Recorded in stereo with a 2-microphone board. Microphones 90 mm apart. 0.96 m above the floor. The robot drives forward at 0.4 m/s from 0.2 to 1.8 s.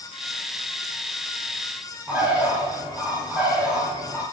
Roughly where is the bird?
Centre.